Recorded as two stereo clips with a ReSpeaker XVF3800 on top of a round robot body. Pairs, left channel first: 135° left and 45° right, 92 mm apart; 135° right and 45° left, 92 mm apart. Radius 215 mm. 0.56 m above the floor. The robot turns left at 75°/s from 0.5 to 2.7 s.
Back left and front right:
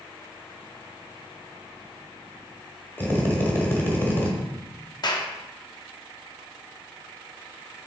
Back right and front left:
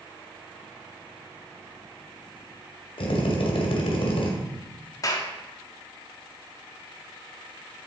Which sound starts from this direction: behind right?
A drill, at 3.0 s.